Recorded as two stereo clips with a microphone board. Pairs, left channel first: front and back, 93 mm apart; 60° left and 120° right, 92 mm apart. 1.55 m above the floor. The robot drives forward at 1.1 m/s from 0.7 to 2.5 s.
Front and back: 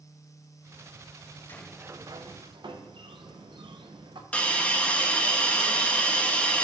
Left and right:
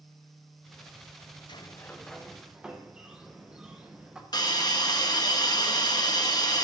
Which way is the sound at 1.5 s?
65° left.